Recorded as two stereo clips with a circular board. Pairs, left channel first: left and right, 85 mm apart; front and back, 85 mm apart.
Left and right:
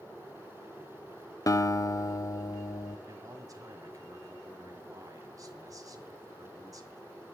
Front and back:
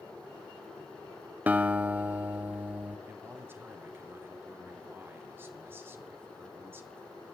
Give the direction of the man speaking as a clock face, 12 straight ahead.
4 o'clock.